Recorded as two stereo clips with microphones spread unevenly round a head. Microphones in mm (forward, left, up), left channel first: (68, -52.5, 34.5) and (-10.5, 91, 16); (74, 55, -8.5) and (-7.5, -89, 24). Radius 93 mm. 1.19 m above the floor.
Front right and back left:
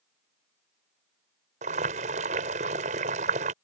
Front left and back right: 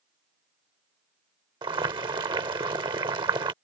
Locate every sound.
1.6 s boiling: 175° left